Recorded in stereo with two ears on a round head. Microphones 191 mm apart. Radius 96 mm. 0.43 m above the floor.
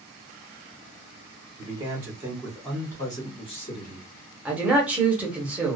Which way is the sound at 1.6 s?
25° right (ahead or behind).